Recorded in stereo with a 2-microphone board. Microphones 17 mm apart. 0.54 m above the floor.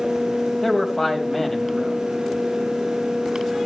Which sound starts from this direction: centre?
A man speaking, at 0.6 s.